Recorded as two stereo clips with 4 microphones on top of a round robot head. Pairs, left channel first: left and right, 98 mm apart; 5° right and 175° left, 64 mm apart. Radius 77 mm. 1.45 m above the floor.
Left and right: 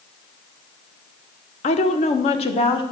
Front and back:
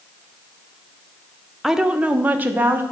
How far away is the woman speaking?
About 0.8 m.